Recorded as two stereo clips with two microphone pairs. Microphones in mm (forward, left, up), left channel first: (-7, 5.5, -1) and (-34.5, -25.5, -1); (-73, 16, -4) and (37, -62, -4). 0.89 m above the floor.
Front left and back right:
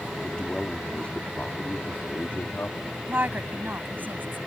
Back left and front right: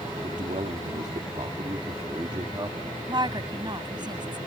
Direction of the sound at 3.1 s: 90° right.